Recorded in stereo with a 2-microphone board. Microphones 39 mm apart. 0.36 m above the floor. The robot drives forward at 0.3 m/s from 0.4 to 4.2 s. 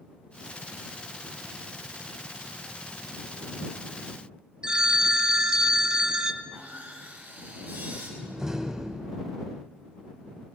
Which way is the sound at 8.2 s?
15° right (ahead or behind).